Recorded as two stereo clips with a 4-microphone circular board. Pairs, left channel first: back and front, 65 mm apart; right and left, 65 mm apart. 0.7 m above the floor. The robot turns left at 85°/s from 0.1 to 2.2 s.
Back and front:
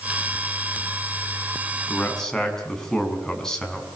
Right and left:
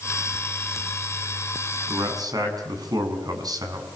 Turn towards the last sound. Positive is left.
turn(degrees=95)